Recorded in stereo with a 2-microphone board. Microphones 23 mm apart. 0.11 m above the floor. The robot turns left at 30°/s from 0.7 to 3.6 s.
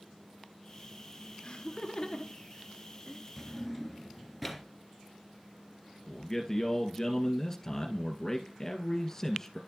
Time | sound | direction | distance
1.4 | laughter | 30° left (ahead or behind) | 1.3 m
3.4 | a drawer | centre (ahead or behind) | 1.0 m
6.1 | a man speaking | 20° left (ahead or behind) | 1.7 m